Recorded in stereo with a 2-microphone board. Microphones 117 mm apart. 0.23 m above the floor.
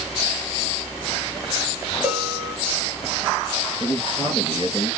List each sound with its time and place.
2.0 s a bell: 10° right (ahead or behind), 1.1 m
3.8 s a man speaking: 65° left (ahead or behind), 3 m